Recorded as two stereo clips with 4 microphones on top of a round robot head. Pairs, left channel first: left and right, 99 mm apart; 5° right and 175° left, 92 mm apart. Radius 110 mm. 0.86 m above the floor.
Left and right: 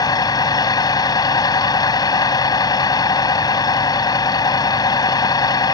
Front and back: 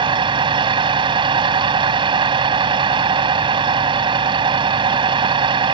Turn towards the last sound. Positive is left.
turn(degrees=140)